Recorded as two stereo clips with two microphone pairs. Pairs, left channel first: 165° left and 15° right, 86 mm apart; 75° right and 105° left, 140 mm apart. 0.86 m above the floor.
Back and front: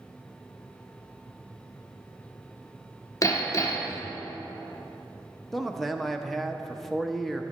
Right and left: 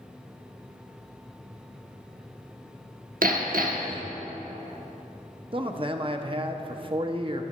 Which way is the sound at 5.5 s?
75° left.